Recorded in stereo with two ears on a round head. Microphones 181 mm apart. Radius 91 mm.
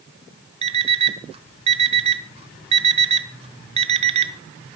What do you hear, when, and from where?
0.6 s an alarm clock: 30° right (ahead or behind), 1.1 m